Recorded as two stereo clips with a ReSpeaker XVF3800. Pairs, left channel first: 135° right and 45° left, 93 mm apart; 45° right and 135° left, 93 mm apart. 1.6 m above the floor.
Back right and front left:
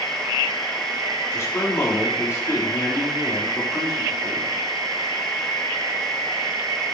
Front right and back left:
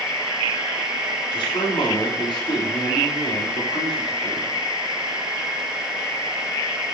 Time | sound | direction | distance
1.3 | a man speaking | 75° right | 3.5 m